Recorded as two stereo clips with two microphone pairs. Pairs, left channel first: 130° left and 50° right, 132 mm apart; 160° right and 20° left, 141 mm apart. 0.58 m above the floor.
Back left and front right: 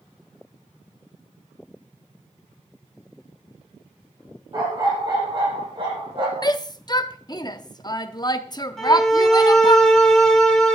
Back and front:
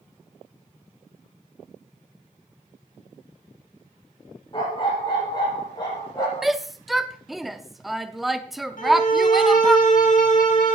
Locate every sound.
4.5 s a dog barking: 105° right, 6.5 m; by 6.5 s 95° right, 8.5 m
6.4 s a shout: 110° left, 0.7 m
8.8 s a violin: 140° right, 3.5 m